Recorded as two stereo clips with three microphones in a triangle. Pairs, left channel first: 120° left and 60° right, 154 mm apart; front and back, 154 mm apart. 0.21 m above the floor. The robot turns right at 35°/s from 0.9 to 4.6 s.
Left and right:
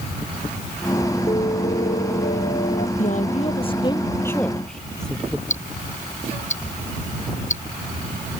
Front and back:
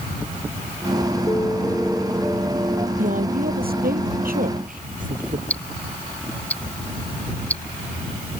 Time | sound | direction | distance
1.3 | a piano | 65° left | ?
3.0 | a woman speaking | 150° left | ?
5.5 | ticking | 80° left | ?